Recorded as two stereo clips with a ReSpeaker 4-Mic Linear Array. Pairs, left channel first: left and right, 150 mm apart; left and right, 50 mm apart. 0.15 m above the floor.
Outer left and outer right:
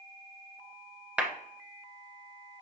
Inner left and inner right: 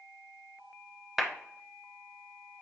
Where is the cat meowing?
I don't hear a cat meowing.